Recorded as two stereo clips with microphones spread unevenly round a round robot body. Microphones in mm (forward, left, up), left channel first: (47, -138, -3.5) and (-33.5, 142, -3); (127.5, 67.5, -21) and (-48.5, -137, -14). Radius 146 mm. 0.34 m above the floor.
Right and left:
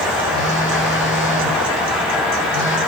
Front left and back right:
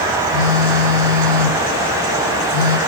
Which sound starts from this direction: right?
A phone buzzing, at 0.3 s.